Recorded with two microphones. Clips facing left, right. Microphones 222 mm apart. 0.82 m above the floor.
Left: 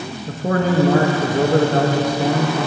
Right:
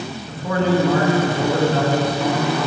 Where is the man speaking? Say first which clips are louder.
Even; 45° left (ahead or behind), 0.8 m.